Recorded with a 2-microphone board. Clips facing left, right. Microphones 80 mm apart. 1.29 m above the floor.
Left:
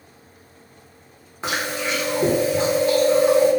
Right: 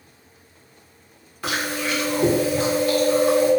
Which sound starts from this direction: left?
Chewing, at 1.4 s.